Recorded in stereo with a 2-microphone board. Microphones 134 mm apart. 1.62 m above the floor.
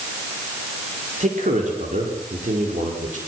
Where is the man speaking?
70° right (ahead or behind), 5 m; by 3.2 s 80° right, 6 m.